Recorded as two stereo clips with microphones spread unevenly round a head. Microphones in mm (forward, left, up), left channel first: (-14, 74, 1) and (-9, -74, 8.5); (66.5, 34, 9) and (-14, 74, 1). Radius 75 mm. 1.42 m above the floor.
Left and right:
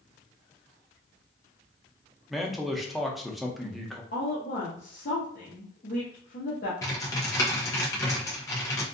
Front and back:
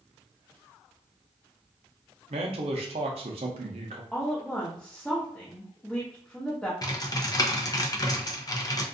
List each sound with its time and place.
2.3 s a man speaking: 175° right, 0.6 m
4.1 s a woman speaking: 55° left, 0.8 m
6.8 s typing on a keyboard: 20° left, 0.6 m